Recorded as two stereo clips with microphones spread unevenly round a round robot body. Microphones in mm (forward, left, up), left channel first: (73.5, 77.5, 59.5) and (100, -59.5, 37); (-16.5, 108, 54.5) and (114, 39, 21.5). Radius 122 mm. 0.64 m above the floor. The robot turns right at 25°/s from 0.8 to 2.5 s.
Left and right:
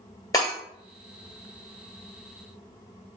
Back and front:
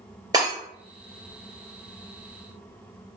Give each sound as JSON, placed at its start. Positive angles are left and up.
{"t": 0.3, "sound": "breaking glass", "azimuth_deg": 40, "distance_m": 2.0}